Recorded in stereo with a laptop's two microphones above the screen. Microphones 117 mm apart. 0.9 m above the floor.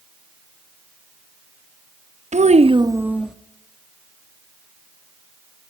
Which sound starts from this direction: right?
A child speaking, at 2.3 s.